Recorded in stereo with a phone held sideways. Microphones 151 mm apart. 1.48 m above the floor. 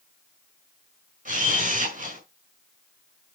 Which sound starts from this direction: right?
A camera shutter, at 1.2 s.